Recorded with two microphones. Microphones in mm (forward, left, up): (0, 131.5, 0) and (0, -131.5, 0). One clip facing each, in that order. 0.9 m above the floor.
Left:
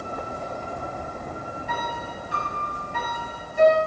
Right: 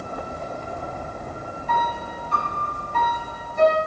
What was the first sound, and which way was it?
A piano, 10° left (ahead or behind).